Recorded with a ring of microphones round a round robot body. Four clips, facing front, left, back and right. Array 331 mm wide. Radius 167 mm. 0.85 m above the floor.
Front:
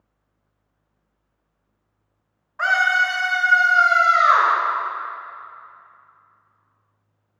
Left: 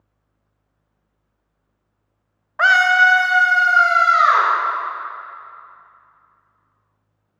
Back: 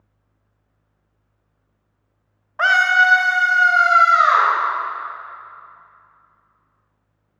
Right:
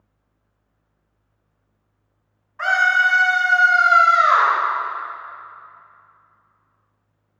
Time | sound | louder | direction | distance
2.6 | a scream | left 4 dB, back 4 dB | 130° left | 0.5 m